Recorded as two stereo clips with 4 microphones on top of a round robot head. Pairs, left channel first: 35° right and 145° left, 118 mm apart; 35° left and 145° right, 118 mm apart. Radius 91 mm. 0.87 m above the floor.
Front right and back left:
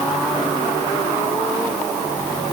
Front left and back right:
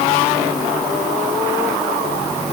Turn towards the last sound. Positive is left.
No sound to turn to.